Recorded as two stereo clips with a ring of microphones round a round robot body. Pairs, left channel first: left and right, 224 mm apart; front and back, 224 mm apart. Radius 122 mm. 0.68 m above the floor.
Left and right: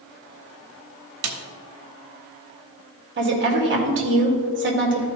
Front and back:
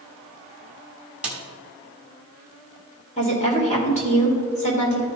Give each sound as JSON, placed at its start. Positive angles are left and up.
{"t": 1.2, "sound": "a snare drum", "azimuth_deg": -95, "distance_m": 1.1}
{"t": 3.2, "sound": "a woman speaking", "azimuth_deg": -60, "distance_m": 2.0}